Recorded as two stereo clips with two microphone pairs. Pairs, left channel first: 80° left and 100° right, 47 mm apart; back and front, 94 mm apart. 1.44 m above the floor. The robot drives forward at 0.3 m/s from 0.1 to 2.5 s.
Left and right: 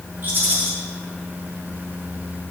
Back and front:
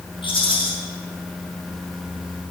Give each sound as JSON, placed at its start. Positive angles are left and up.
{"t": 0.2, "sound": "a rattle", "azimuth_deg": -155, "distance_m": 5.5}